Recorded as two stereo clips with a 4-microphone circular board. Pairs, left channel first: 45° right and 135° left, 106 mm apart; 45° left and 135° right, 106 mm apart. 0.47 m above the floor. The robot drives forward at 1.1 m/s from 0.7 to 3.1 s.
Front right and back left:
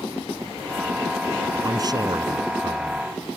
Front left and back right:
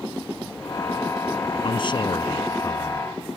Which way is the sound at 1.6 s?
80° left.